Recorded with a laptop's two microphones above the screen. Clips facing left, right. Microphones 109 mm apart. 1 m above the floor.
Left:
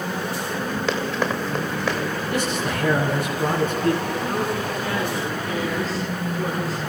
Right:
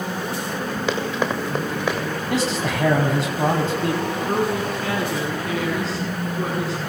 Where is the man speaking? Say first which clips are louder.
Right 4 dB; 85° right, 9 m.